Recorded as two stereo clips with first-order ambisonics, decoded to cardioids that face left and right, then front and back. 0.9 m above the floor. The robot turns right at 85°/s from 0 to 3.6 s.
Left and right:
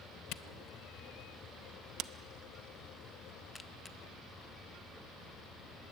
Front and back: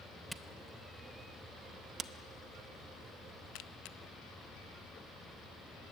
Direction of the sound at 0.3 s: 95° left.